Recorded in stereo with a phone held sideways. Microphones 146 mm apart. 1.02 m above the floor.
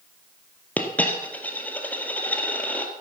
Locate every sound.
0.8 s a dropped coin: 10° left (ahead or behind), 1.7 m